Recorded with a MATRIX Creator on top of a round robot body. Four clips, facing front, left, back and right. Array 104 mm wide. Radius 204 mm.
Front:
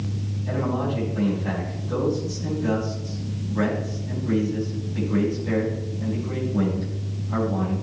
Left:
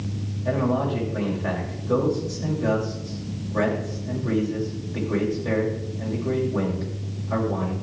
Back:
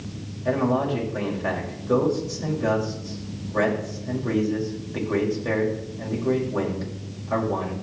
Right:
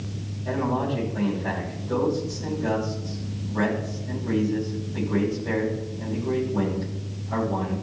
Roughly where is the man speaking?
Behind left.